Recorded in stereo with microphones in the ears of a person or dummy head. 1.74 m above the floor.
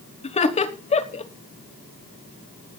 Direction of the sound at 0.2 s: 30° left (ahead or behind).